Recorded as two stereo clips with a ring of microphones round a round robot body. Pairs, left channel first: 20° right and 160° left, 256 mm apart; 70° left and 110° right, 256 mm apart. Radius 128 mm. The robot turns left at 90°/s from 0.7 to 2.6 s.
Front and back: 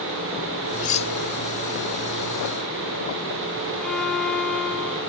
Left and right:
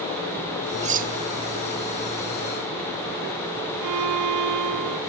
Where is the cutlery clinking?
60° right, 0.8 m; by 1.1 s 90° right, 0.8 m.